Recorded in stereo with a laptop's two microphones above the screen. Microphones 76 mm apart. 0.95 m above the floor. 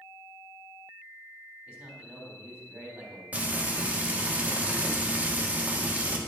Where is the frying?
20° right (ahead or behind), 1.7 m.